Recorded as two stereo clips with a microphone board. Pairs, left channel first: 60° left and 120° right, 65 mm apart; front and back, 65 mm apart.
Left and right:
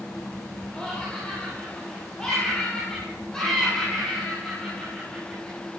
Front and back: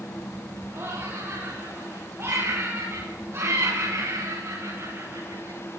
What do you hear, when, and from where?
0.7 s laughter: 140° left, 7 m